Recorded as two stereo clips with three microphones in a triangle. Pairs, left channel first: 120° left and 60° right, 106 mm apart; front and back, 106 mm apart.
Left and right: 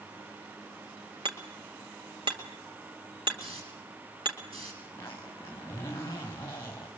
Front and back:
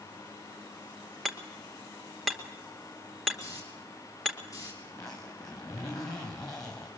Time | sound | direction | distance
1.2 | hammering | 85° right | 2.5 m
3.4 | a hiss | 50° right | 7 m
4.8 | a zipper | 55° left | 4.5 m